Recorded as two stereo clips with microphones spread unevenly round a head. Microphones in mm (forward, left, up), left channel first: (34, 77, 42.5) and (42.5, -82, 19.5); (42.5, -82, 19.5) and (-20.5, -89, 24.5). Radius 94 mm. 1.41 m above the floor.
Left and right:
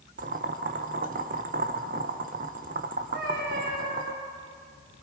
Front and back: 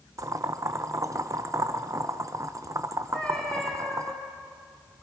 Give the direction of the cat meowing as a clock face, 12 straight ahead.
2 o'clock.